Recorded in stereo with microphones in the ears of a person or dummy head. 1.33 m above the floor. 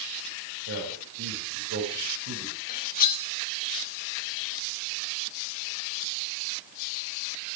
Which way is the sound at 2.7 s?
50° left (ahead or behind).